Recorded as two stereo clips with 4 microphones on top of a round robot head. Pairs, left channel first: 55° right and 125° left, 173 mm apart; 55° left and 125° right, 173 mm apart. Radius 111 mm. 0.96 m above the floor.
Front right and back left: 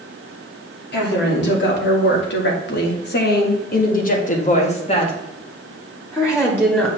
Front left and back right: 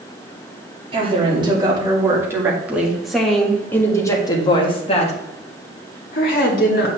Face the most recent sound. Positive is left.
turn(degrees=25)